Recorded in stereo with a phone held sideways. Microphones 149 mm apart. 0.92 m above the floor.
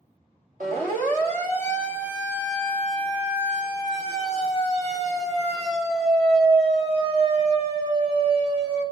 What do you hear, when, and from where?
0.6 s a siren: 70° right (ahead or behind), 5 m; by 8.8 s 40° right (ahead or behind), 8 m